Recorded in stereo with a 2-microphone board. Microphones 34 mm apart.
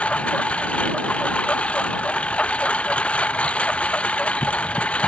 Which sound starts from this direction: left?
A lawn mower, at 0.0 s.